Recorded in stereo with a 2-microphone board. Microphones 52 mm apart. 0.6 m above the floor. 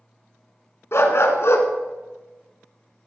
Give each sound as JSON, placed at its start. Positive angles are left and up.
{"t": 0.9, "sound": "a dog barking", "side_deg": 60, "distance_m": 1.6}